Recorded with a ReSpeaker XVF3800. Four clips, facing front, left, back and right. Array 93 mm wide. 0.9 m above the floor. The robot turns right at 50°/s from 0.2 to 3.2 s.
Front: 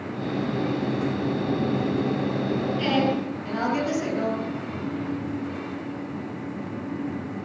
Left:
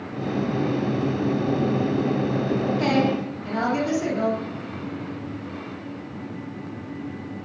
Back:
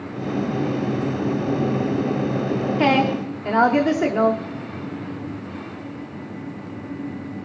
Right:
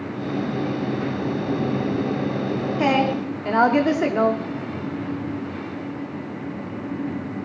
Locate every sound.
2.8 s a woman speaking: 160° right, 3.5 m; by 4.4 s 135° right, 3.5 m